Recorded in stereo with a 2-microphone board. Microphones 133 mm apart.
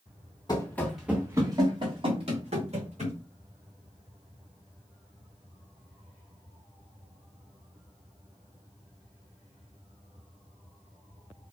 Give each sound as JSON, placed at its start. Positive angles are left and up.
{"t": 0.5, "sound": "running footsteps", "side_deg": 30, "distance_m": 0.9}